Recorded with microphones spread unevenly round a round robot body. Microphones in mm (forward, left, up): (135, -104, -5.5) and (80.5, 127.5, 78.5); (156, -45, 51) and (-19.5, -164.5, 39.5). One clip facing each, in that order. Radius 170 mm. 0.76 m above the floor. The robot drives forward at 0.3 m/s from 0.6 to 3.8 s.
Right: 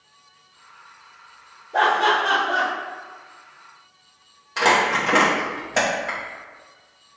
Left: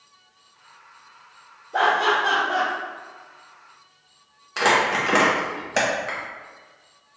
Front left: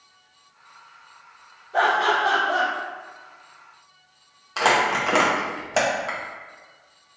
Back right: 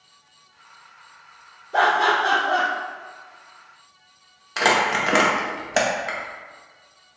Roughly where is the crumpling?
Behind right.